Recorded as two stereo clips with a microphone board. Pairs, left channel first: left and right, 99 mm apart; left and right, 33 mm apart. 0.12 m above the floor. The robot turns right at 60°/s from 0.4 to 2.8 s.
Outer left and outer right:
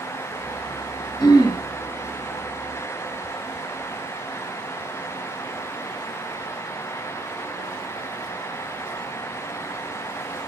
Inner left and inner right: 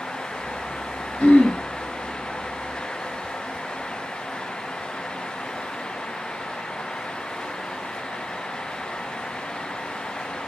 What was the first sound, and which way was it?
Throat clearing, 45° left (ahead or behind).